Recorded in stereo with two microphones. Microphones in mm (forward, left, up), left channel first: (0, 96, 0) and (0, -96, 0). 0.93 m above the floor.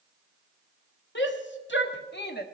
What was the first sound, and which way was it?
A shout, 80° left.